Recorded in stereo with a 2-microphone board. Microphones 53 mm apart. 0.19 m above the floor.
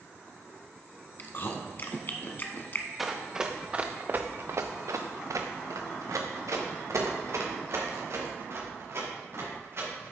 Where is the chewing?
40° left (ahead or behind), 0.9 m.